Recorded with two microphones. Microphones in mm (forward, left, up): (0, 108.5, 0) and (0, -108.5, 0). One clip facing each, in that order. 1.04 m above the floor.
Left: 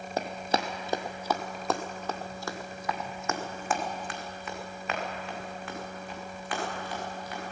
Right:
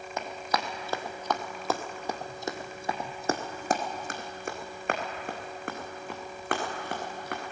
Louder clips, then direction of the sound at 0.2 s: Left 3 dB; 35° left (ahead or behind).